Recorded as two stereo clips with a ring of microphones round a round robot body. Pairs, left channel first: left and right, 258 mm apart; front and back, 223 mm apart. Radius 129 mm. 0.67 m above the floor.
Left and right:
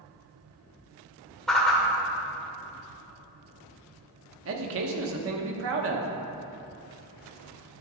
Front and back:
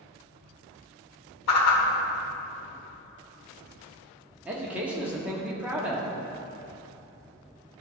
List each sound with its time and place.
1.5 s a whoosh: straight ahead, 1.4 m
4.5 s a man speaking: 95° right, 1.0 m